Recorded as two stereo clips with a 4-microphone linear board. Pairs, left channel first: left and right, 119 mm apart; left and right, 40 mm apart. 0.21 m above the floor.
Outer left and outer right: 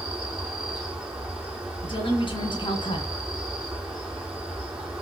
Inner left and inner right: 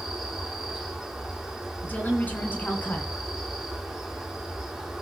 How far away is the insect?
About 3.5 m.